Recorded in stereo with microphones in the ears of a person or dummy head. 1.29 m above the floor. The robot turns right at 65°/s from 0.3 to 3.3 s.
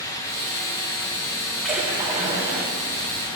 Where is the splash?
175° left, 1.9 m; by 2.7 s 110° right, 1.9 m.